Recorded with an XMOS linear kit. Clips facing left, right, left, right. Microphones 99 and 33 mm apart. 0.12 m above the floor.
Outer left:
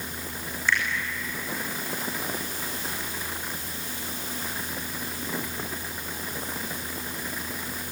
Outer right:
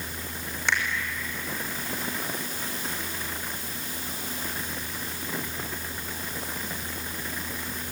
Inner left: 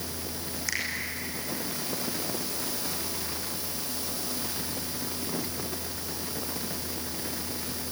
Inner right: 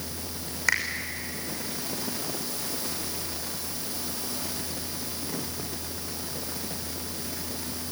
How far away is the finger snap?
About 5.5 m.